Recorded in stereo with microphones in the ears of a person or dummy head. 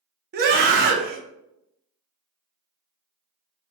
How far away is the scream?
About 0.6 m.